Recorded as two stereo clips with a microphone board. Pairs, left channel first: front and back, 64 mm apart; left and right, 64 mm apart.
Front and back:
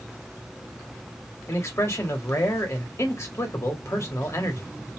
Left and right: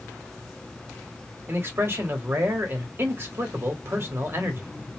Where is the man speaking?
40° right, 1.1 m.